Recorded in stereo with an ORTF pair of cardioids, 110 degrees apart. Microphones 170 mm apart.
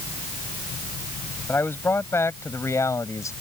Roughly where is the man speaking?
Ahead.